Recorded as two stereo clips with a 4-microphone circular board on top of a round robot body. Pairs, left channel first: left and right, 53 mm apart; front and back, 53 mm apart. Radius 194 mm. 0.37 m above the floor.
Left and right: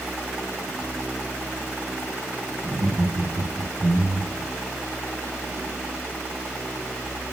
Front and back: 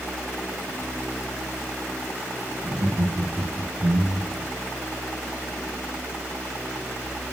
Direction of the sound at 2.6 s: 120° right.